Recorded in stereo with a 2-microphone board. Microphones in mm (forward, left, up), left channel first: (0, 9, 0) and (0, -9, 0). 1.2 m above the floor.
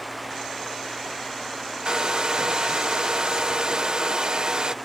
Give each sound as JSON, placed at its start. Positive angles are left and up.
{"t": 1.9, "sound": "a hair dryer", "side_deg": -40}